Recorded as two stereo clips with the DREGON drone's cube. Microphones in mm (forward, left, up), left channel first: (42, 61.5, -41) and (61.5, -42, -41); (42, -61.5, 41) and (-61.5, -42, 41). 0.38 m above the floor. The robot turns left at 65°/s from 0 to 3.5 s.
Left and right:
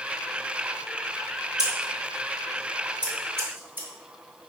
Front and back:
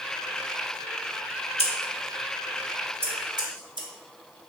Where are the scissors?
25° right, 0.8 m; by 3.9 s 150° right, 0.8 m.